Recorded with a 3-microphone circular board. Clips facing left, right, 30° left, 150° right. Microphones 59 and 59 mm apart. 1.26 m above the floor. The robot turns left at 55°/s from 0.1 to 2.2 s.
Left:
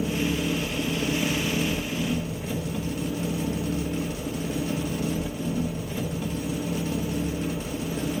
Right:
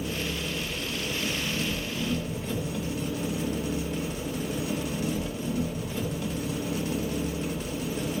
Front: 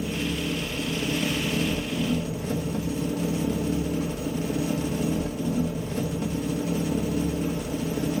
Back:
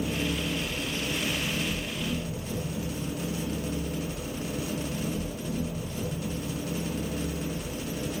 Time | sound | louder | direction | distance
0.0 | an engine running | left 6 dB, front 1 dB | 130° left | 1.6 m